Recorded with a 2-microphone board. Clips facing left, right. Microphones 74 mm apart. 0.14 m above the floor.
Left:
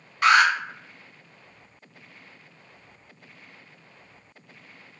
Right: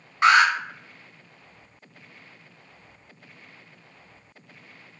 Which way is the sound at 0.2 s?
25° right (ahead or behind).